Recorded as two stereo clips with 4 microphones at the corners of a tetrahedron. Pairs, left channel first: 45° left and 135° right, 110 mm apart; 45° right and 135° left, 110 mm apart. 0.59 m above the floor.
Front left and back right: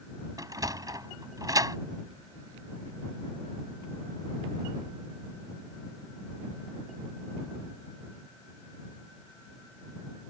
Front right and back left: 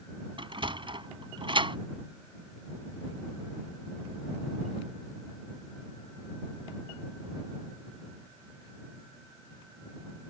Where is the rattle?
I don't hear a rattle.